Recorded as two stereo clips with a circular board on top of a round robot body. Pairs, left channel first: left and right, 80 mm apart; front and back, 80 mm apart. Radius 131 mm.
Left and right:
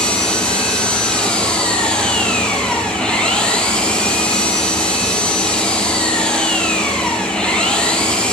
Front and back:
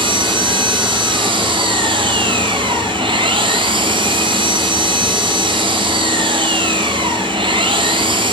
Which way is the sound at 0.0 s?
170° left.